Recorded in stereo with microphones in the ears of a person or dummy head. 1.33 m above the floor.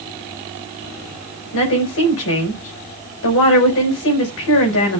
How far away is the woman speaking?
About 4.5 m.